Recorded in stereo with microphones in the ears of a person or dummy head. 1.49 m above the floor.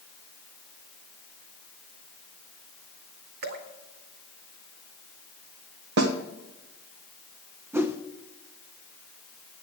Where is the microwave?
I don't hear a microwave.